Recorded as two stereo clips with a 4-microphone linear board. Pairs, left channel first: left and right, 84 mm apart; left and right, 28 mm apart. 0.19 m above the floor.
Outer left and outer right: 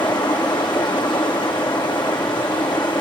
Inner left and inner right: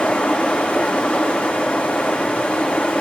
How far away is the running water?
About 8 m.